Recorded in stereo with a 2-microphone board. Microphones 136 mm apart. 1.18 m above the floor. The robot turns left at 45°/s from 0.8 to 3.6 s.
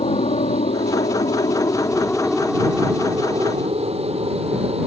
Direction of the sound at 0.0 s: 45° left (ahead or behind).